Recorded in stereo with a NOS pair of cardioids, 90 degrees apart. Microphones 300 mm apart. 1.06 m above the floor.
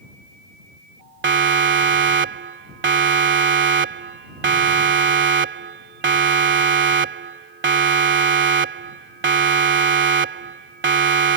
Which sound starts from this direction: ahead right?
A siren, at 1.2 s.